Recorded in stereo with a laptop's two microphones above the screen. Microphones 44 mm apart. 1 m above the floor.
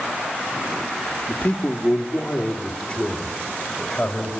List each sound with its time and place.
1.3 s a man speaking: 40° left (ahead or behind), 1.6 m; by 4.3 s 15° left (ahead or behind), 4.5 m